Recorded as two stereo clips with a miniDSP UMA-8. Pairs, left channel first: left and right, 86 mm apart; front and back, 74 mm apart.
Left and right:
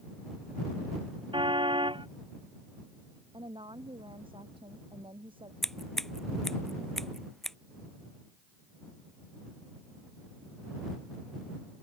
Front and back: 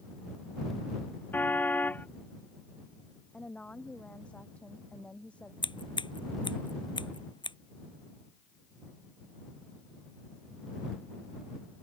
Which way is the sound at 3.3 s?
75° right.